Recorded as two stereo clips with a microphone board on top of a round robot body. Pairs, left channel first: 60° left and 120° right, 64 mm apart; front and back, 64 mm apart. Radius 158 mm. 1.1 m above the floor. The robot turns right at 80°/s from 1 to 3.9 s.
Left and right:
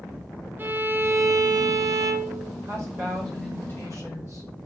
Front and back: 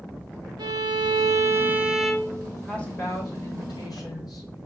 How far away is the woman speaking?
About 4.5 m.